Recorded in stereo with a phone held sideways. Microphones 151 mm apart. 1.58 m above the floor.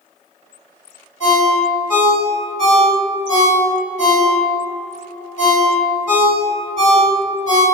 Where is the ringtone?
55° left (ahead or behind), 1.6 m.